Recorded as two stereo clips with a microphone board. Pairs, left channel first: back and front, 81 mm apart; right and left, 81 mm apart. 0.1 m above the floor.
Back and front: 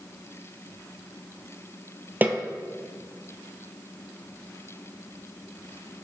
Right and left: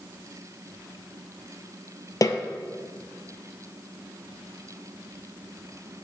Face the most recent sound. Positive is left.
turn(degrees=-60)